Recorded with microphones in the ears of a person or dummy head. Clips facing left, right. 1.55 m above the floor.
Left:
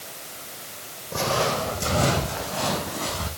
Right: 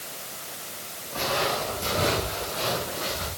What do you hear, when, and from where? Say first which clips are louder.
1.1 s footsteps: left 3 dB; 65° left (ahead or behind), 4.5 m; by 3.3 s 75° left (ahead or behind), 6 m